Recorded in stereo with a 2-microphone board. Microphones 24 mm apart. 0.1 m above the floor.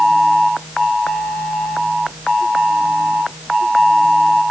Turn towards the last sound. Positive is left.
No sound to turn to.